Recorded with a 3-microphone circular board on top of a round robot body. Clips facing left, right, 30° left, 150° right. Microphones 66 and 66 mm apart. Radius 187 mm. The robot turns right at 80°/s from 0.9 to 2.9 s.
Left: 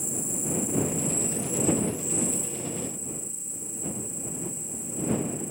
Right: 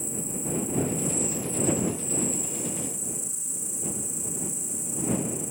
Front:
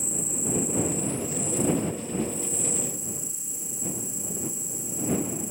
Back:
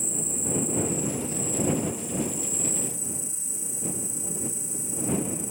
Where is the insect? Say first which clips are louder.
Even, front 1 dB; 115° left; by 5.5 s 85° right.